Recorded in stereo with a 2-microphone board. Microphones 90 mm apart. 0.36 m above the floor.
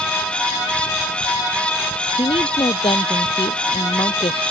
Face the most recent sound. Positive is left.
turn(degrees=85)